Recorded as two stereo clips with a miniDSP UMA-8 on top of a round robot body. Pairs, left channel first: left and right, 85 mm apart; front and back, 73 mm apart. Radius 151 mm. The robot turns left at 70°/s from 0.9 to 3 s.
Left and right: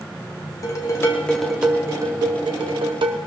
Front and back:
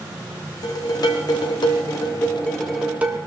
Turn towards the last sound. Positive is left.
turn(degrees=-110)